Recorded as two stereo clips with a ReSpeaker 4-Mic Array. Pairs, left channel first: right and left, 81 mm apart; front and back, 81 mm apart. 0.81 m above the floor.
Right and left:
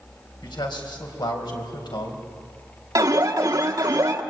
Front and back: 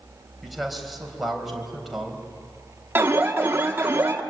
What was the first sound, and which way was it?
A man speaking, 90° right.